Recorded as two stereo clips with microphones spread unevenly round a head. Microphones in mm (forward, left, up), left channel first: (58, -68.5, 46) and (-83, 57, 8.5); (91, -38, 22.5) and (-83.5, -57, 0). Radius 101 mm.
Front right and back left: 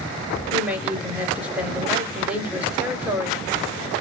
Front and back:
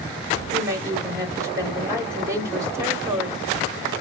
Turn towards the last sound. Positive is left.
turn(degrees=175)